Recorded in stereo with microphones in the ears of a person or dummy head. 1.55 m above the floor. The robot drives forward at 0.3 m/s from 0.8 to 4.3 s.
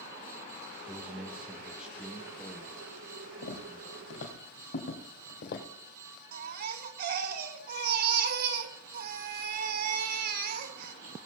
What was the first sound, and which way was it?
A man speaking, 10° right (ahead or behind).